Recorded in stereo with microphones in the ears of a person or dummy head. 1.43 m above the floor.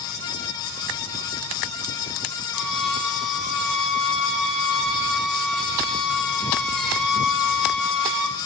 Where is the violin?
5° left (ahead or behind), 1.5 m.